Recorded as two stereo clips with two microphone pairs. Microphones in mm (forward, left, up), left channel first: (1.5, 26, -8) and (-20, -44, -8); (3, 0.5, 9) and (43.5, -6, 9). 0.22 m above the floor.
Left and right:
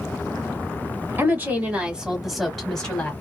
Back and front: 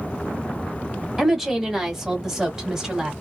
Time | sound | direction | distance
1.2 | a woman speaking | 90° right | 1.5 m